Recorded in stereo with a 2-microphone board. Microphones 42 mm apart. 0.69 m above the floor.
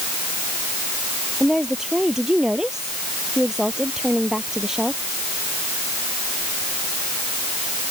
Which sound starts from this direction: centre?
A woman speaking, at 1.4 s.